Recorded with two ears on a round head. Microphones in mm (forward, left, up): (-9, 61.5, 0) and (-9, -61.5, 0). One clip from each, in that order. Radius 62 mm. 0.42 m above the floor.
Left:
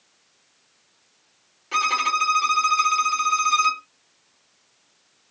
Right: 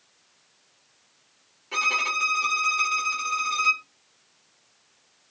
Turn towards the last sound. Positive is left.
turn(degrees=25)  # may be behind; listen again after turning